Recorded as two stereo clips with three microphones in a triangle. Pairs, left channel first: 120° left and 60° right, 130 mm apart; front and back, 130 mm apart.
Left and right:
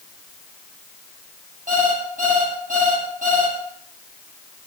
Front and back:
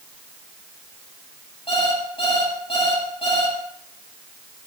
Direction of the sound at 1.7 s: 45° right.